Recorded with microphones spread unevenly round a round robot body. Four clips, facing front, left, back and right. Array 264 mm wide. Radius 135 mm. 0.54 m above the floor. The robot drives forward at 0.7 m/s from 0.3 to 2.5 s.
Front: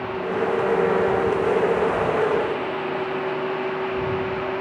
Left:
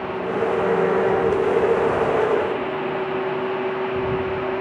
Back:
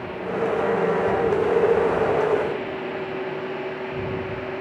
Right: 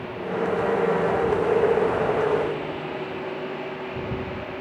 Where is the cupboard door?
No cupboard door in this recording.